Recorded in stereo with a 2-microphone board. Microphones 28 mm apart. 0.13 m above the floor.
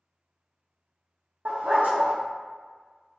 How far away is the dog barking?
About 1.7 m.